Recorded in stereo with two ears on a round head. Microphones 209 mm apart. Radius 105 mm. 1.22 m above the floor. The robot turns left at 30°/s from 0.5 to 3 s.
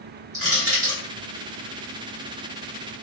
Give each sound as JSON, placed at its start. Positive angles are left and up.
{"t": 0.3, "sound": "crushing", "side_deg": -30, "distance_m": 1.4}